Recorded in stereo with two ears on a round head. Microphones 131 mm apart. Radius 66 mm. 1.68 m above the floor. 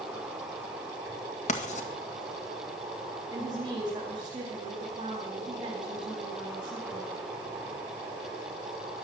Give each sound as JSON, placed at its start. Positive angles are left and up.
{"t": 0.0, "sound": "an insect", "side_deg": -10, "distance_m": 5.5}
{"t": 1.5, "sound": "writing", "side_deg": 50, "distance_m": 1.9}
{"t": 3.3, "sound": "a woman speaking", "side_deg": -30, "distance_m": 4.0}